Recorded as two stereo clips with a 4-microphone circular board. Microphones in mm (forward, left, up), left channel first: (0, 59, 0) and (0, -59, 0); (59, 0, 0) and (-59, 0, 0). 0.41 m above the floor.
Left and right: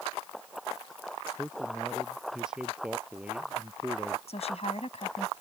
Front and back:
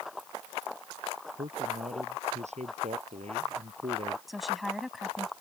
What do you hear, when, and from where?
1.4 s a man speaking: straight behind; by 4.2 s 165° right
4.3 s a woman speaking: 90° left